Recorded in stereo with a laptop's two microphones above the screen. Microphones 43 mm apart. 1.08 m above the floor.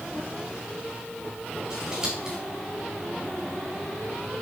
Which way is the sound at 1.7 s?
20° right (ahead or behind).